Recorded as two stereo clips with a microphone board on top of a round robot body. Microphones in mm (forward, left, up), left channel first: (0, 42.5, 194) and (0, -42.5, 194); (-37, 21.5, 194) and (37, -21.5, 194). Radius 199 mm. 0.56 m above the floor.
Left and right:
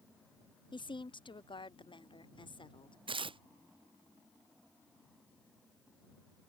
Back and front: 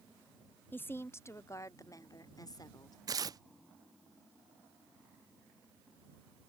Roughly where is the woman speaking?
Left.